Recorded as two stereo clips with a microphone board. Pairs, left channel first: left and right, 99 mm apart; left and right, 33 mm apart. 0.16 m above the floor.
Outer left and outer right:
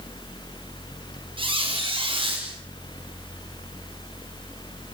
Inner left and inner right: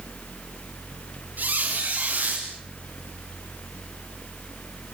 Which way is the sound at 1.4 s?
60° right (ahead or behind).